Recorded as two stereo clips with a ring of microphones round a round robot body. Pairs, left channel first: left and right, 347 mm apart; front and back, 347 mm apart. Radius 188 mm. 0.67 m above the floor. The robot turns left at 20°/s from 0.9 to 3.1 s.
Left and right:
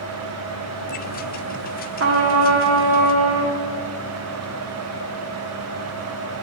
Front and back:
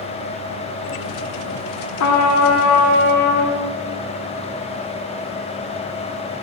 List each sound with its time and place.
2.0 s a trumpet: 35° right, 1.3 m; by 3.6 s 60° right, 1.3 m